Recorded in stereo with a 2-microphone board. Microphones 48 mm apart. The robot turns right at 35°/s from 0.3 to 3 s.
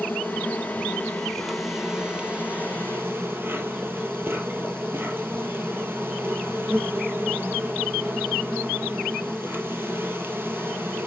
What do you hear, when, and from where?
0.0 s an insect: 140° left, 2.0 m; by 11.1 s 130° right, 2.0 m